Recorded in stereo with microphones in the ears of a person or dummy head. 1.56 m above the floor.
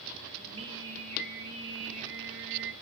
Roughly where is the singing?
Right.